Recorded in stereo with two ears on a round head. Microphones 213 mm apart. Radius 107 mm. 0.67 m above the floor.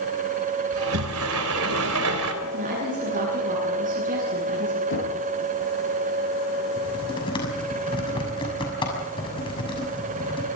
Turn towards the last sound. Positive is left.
turn(degrees=25)  # may be behind; listen again after turning